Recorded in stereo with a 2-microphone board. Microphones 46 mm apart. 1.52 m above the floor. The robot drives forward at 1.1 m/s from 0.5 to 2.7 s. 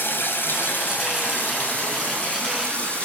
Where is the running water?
50° left (ahead or behind), 3 m; by 3.1 s 30° left (ahead or behind), 4.5 m.